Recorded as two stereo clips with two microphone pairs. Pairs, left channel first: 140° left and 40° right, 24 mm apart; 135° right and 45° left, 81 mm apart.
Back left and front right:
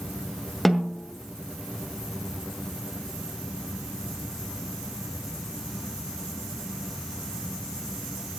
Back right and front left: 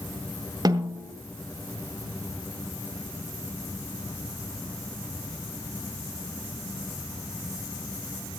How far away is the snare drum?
About 2 m.